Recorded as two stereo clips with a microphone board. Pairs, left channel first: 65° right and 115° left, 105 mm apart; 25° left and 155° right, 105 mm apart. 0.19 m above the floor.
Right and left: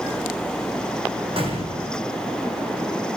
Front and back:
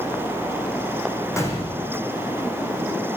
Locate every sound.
1.4 s a gunshot: 85° left, 9 m